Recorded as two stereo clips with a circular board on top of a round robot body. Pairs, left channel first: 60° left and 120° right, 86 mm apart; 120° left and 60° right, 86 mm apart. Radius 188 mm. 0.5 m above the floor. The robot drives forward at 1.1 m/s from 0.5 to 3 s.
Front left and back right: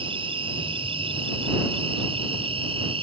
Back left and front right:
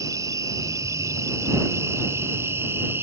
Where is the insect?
110° right; by 3.0 s 125° right.